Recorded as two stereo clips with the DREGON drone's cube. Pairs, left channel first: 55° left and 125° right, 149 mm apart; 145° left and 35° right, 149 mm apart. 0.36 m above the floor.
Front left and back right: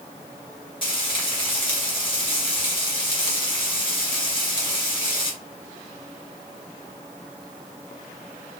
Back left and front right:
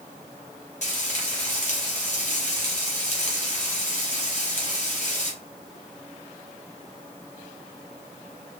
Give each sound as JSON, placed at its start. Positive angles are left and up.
{"t": 0.8, "sound": "frying", "azimuth_deg": 110, "distance_m": 1.0}